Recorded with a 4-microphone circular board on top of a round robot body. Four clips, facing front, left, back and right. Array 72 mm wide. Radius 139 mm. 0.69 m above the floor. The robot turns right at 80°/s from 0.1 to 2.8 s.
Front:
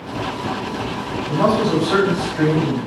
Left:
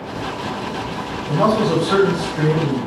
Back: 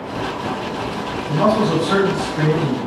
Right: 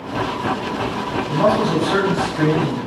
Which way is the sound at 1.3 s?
80° left.